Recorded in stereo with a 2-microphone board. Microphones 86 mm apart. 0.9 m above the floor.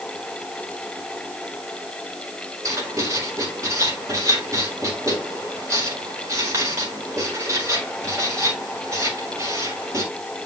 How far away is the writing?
About 4 m.